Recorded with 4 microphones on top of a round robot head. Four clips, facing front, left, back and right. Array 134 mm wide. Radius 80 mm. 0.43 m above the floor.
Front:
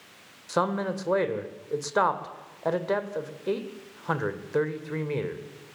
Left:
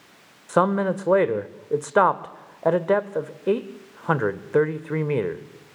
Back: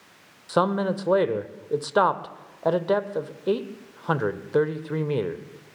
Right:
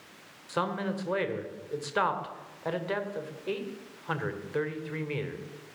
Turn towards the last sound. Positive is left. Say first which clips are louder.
# left 11 dB, back 4 dB
turn(degrees=115)